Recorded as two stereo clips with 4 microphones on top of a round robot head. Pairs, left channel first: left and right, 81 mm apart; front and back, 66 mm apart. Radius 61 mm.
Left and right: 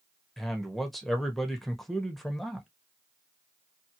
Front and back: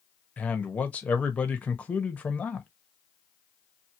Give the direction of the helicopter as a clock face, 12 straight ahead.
I don't hear a helicopter.